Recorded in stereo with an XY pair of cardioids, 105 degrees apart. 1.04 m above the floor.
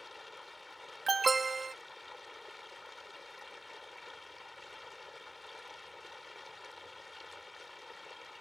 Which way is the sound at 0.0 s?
20° left.